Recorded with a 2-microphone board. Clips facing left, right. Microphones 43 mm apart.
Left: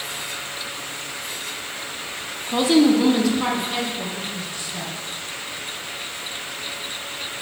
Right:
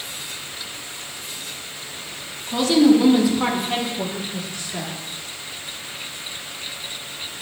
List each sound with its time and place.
2.5 s a woman speaking: 25° left (ahead or behind), 0.8 m; by 4.9 s 50° right (ahead or behind), 1.3 m